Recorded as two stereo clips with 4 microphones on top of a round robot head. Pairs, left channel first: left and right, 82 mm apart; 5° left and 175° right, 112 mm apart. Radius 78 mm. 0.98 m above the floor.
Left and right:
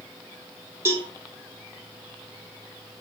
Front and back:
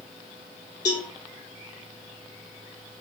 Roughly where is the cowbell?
Ahead right.